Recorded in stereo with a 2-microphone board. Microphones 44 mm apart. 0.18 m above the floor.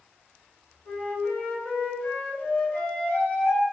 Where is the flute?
35° left (ahead or behind), 2.0 m.